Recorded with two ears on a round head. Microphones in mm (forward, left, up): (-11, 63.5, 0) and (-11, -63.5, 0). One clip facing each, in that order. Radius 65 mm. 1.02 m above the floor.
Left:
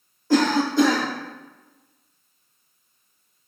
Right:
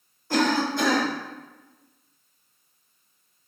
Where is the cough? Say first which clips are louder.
Left 4 dB; 80° left, 1.3 m.